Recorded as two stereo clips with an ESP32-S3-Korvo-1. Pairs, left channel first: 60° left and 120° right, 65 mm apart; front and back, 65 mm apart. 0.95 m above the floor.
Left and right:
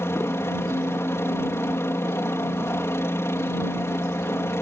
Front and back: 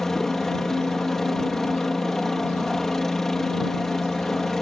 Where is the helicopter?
80° left.